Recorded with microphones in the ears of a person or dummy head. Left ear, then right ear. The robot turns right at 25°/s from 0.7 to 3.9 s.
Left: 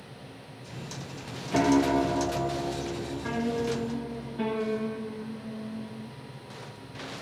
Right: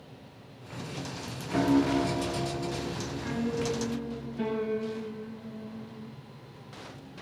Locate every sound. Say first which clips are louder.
1.5 s a piano: left 3 dB; 100° left, 0.9 m; by 6.1 s 155° left, 0.9 m